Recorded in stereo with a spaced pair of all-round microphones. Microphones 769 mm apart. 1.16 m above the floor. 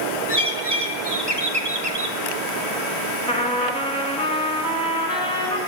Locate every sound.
0.3 s a bird: 35° right (ahead or behind), 0.9 m
3.3 s a trumpet: 5° left (ahead or behind), 1.9 m